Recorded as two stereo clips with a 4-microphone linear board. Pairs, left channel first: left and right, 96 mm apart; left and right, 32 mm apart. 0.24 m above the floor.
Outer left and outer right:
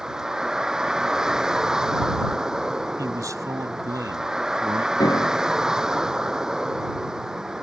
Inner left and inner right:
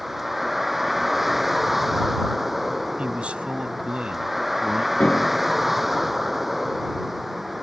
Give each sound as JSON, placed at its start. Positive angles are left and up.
{"t": 0.0, "sound": "a vehicle", "side_deg": -5}
{"t": 3.0, "sound": "a man speaking", "side_deg": -35}
{"t": 5.0, "sound": "a piano", "side_deg": 45}